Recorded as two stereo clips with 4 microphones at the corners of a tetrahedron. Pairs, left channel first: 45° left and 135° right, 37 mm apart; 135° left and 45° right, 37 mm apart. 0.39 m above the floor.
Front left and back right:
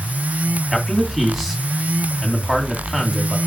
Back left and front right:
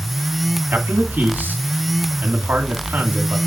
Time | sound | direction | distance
0.7 | a man speaking | 55° right | 2.5 m